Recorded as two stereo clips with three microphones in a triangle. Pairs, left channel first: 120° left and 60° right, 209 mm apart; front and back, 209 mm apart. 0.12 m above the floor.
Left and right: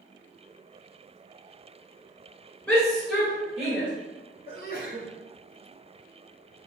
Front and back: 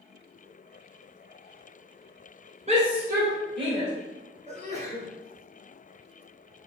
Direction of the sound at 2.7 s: 160° right.